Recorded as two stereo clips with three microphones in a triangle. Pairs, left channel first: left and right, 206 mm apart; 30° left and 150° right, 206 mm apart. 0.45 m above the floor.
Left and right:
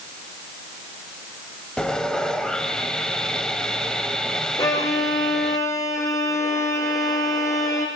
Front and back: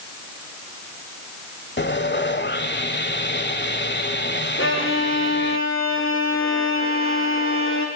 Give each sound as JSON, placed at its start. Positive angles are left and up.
{"t": 1.8, "sound": "sawing", "azimuth_deg": 5, "distance_m": 1.6}
{"t": 4.6, "sound": "a violin", "azimuth_deg": 15, "distance_m": 4.5}